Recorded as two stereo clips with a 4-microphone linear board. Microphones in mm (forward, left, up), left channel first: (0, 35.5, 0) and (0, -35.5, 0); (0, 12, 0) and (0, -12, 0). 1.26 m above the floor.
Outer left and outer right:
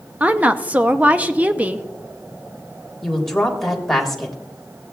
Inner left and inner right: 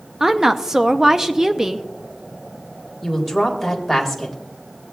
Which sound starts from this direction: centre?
A woman speaking, at 3.0 s.